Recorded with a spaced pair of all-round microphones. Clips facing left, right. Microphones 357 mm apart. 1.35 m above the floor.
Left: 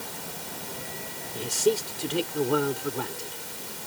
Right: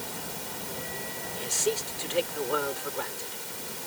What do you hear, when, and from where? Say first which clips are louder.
1.4 s a man speaking: left 6 dB; 55° left (ahead or behind)